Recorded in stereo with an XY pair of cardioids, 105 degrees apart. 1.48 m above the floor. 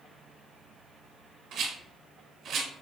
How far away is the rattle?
About 1.6 m.